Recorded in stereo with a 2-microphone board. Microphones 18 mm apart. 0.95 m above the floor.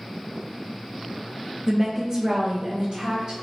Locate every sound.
1.7 s a woman speaking: 15° right (ahead or behind), 0.6 m; by 3.3 s 45° right (ahead or behind), 1.1 m